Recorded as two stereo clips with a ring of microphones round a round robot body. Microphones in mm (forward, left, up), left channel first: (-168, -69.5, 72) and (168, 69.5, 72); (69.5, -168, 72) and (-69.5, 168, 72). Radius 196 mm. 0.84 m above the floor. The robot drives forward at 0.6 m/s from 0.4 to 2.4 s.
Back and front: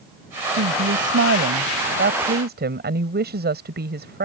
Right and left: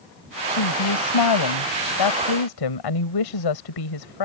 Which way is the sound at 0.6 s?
35° right.